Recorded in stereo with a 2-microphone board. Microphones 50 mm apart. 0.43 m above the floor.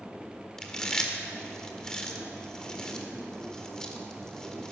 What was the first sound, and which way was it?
Chewing, 15° left (ahead or behind).